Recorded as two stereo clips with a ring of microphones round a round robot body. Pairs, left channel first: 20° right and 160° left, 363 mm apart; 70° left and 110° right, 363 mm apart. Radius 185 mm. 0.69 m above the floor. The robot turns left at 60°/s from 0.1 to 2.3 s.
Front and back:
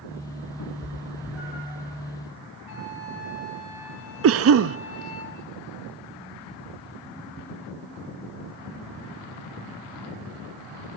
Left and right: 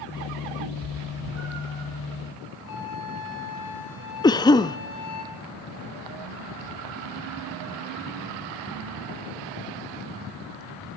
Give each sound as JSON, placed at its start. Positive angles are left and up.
{"t": 0.6, "sound": "a cat meowing", "azimuth_deg": -70, "distance_m": 8.5}
{"t": 2.7, "sound": "a flute", "azimuth_deg": 10, "distance_m": 4.5}
{"t": 4.2, "sound": "a cough", "azimuth_deg": 140, "distance_m": 0.6}